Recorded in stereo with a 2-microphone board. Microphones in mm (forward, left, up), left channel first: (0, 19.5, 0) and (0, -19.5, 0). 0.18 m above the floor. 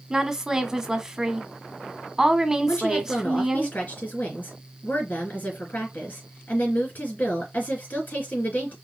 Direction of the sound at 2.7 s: 50° left (ahead or behind).